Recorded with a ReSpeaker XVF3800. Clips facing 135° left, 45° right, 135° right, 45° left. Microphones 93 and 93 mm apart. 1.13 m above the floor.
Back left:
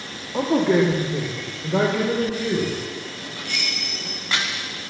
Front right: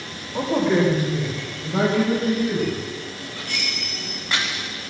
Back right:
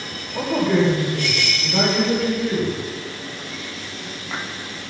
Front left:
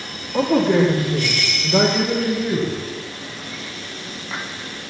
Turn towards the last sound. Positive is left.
turn(degrees=115)